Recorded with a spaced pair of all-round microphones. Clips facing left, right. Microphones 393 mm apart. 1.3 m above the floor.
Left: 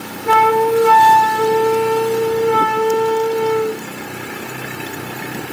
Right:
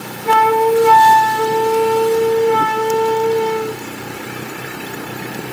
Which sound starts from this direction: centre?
A flute, at 0.2 s.